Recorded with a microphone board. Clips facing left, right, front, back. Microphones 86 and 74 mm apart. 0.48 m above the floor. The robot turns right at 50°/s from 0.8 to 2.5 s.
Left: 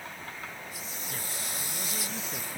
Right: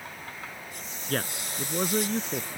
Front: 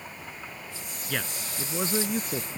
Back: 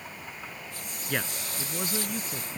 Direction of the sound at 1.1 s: 105° right.